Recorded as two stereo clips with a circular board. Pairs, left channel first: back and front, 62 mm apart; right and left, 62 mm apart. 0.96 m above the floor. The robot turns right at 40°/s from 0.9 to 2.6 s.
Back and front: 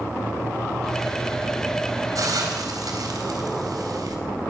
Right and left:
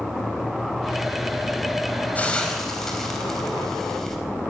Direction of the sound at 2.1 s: 25° right.